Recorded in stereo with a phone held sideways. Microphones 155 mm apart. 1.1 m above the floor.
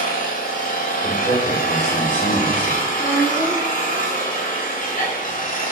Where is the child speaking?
15° left (ahead or behind), 2 m.